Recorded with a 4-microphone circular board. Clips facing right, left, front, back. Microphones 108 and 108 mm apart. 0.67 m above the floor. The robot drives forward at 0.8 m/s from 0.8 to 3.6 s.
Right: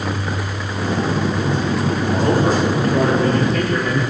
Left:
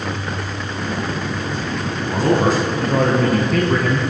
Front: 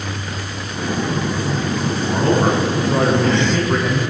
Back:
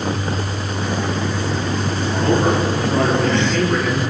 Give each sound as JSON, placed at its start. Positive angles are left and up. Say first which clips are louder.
{"t": 2.0, "sound": "a man speaking", "louder": "left 2 dB, front 1 dB", "azimuth_deg": 60, "distance_m": 5.5}